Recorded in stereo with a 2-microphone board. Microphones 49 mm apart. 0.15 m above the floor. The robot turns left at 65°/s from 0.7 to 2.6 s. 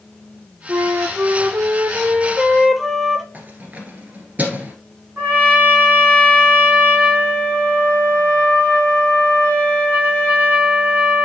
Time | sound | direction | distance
0.7 | a flute | 55° right | 0.7 m
3.3 | keys jangling | 35° right (ahead or behind) | 1.5 m
5.2 | a trumpet | 35° right (ahead or behind) | 4 m